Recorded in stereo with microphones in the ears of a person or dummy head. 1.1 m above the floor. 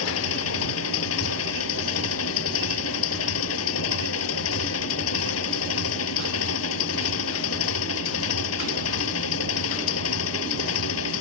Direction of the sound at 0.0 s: 80° left.